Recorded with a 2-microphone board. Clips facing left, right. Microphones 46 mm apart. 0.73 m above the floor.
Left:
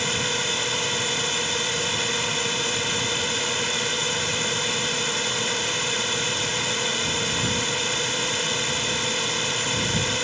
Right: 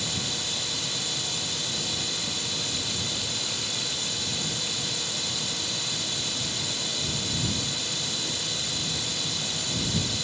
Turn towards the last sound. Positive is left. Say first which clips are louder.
# left 7 dB
turn(degrees=50)  # may be behind; listen again after turning